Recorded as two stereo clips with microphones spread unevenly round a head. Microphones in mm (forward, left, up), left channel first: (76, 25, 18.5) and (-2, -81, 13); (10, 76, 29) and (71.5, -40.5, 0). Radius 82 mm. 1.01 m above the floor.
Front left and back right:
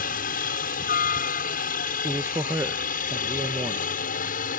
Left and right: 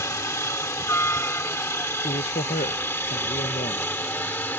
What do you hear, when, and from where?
0.0 s a helicopter: 50° left; by 4.6 s 40° left
2.0 s a man speaking: 165° left